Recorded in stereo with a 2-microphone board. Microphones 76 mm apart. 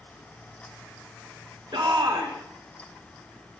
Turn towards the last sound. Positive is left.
turn(degrees=-75)  # may be behind; listen again after turning